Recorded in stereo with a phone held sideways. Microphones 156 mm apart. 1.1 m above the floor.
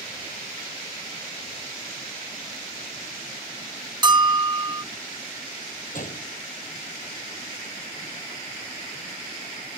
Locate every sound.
4.0 s a bell: 30° right (ahead or behind)
5.9 s a gunshot: 60° left (ahead or behind)